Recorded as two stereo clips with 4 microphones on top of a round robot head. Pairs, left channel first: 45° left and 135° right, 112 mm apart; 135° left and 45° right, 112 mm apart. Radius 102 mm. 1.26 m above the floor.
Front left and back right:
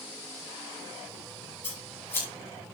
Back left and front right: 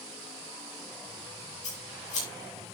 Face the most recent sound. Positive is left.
turn(degrees=115)